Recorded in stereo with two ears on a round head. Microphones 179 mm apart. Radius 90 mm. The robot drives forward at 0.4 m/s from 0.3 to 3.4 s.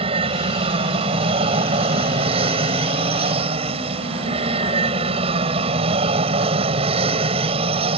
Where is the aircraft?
30° right (ahead or behind).